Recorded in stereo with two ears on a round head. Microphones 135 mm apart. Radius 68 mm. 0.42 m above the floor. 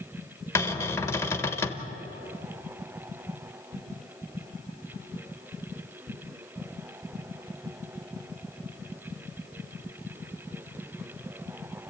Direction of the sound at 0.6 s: 20° left (ahead or behind).